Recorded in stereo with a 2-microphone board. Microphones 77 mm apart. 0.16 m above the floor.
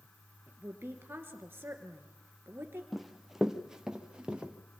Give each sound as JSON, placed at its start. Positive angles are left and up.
{"t": 0.5, "sound": "a woman speaking", "side_deg": -30, "distance_m": 3.0}
{"t": 2.9, "sound": "running footsteps", "side_deg": 0, "distance_m": 1.5}